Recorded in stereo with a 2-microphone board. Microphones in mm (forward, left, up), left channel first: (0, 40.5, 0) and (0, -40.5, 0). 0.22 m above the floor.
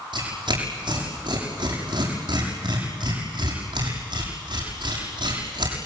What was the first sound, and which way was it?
Tearing paper, 75° right (ahead or behind).